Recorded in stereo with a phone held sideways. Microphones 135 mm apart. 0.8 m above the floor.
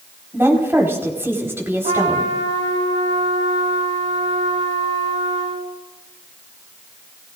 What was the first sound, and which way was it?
A woman speaking, 15° right (ahead or behind).